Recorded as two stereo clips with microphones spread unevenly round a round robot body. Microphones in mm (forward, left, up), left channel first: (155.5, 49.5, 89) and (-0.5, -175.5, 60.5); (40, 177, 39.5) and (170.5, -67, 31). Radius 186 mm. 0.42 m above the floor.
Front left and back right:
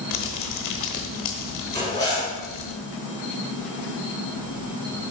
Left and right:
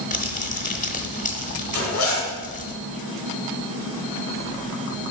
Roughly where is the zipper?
Behind left.